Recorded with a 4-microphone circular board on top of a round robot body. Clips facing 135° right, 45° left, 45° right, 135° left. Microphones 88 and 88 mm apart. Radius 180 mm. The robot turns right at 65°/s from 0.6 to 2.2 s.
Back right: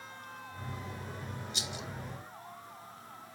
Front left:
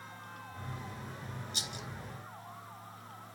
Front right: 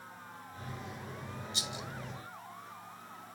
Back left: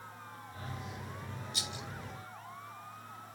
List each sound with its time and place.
1.5 s a rattle: 10° left, 2.0 m; by 1.9 s 30° left, 2.0 m